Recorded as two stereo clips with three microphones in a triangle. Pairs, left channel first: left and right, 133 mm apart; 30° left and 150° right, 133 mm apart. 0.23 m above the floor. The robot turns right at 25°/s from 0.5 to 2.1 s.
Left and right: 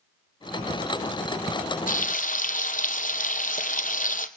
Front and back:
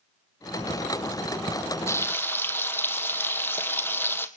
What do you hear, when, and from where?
1.9 s frying: 100° left, 1.5 m; by 4.3 s 105° left, 1.5 m